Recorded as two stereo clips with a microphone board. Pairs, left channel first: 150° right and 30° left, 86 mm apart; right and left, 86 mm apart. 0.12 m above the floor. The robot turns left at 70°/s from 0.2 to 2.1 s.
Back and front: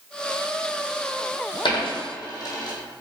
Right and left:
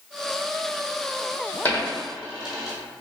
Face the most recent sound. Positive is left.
turn(degrees=170)